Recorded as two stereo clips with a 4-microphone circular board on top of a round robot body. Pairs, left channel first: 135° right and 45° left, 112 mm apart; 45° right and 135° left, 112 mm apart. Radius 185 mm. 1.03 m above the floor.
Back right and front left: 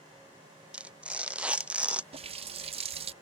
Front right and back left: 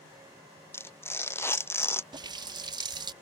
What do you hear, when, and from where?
0.7 s tearing paper: 20° right
2.1 s a running tap: 80° left